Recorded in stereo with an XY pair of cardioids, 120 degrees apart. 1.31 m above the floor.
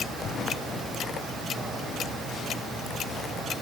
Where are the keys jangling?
I don't hear keys jangling.